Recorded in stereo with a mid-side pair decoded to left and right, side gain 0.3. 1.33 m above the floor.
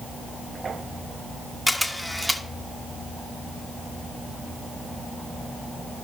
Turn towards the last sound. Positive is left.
turn(degrees=0)